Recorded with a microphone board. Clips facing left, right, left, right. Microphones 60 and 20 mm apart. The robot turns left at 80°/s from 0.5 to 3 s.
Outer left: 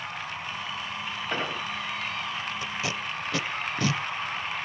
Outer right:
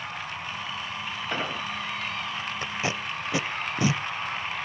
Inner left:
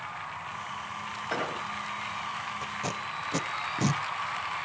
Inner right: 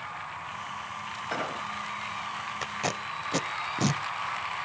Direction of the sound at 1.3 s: Centre (ahead or behind).